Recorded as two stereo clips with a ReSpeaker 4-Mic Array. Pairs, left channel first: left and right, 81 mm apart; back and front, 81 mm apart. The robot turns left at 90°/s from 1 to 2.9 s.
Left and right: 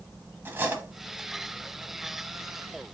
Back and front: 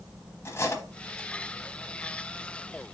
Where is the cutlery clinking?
145° right, 1.0 m; by 1.3 s 170° right, 1.0 m.